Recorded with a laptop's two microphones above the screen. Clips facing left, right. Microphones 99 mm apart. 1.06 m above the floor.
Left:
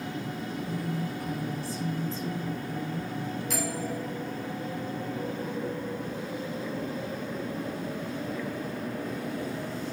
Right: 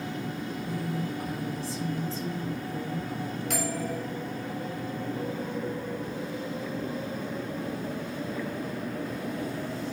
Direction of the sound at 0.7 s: 80° right.